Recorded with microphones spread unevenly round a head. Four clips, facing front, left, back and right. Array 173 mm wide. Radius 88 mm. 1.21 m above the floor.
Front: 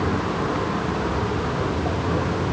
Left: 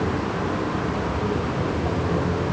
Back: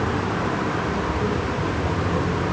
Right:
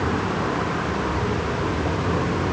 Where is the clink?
I don't hear a clink.